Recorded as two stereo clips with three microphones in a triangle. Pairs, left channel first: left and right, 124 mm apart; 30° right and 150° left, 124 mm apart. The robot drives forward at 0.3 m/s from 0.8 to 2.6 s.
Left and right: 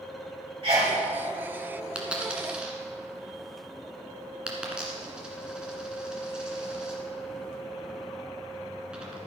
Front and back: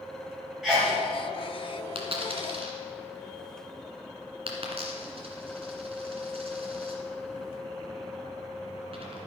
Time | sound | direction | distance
0.6 | a sneeze | 125° right | 2 m
1.9 | a dropped coin | 170° right | 1.7 m